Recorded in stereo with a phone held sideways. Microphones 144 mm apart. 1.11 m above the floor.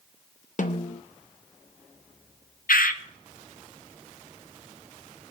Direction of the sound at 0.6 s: 60° left (ahead or behind).